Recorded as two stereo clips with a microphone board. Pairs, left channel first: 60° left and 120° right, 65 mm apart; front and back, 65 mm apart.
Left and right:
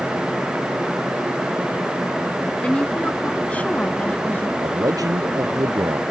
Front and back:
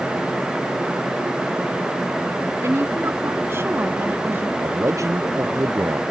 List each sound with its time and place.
2.6 s a woman speaking: 130° left; by 4.5 s 125° left
4.6 s a man speaking: 140° right